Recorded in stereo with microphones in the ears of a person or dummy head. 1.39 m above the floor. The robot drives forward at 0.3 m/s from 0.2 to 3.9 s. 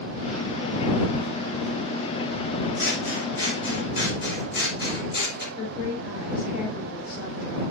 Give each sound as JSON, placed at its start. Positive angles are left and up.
{"t": 2.8, "sound": "scissors", "side_deg": 65, "distance_m": 4.5}
{"t": 5.6, "sound": "a woman speaking", "side_deg": 45, "distance_m": 3.5}